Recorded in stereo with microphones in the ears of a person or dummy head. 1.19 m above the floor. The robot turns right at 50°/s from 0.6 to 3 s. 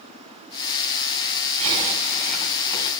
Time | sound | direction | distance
1.6 | a zipper | 35° right | 4 m